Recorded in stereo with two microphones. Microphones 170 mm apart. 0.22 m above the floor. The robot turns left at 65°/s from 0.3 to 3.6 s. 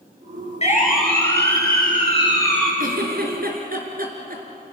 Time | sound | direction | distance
0.6 | a siren | 40° left (ahead or behind) | 4.5 m
2.8 | a giggle | 55° right (ahead or behind) | 3.5 m